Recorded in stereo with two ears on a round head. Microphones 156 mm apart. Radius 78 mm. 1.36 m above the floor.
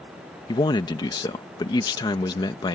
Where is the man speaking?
25° left (ahead or behind).